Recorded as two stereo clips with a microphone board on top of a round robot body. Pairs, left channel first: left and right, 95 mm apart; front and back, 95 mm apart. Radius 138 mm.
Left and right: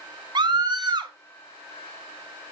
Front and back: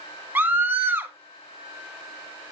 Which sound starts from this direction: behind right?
A scream, at 0.3 s.